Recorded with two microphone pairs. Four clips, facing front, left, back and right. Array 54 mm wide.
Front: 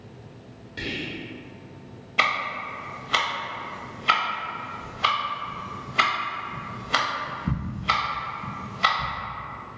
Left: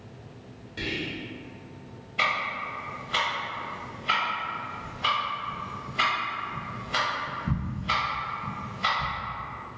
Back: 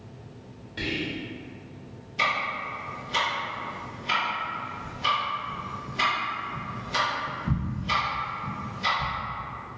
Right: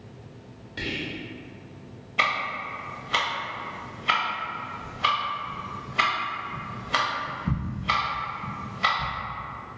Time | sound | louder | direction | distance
0.8 | whispering | even, back 1 dB | 55° right | 1.0 m
2.2 | ticking | right 1 dB, front 2 dB | 25° right | 0.6 m